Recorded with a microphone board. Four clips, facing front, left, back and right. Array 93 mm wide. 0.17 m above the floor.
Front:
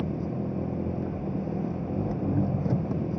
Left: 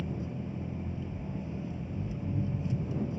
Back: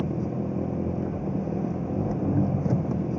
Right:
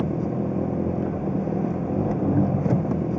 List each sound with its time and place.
0.0 s an engine running: 100° right